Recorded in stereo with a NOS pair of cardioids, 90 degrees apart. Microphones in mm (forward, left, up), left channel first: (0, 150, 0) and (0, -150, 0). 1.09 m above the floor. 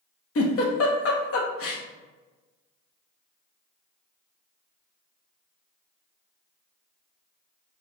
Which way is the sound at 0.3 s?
50° left.